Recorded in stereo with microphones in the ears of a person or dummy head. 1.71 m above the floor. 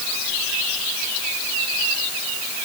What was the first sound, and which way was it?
Only background noise.